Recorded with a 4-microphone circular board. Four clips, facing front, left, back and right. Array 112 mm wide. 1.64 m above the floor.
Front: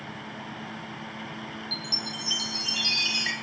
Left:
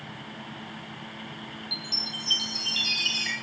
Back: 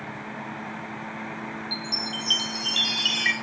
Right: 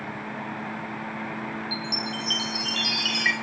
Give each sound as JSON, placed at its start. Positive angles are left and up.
{"t": 1.7, "sound": "a chime", "azimuth_deg": -110, "distance_m": 1.7}